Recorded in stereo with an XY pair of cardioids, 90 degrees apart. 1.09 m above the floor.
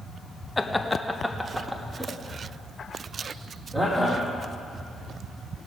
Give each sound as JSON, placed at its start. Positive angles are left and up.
{"t": 0.6, "sound": "laughter", "azimuth_deg": 20, "distance_m": 0.7}